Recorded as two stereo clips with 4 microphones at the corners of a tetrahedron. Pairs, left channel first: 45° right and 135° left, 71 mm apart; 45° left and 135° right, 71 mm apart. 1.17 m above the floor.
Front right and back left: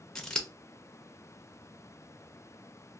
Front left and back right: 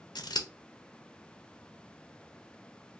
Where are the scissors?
35° left, 0.6 m.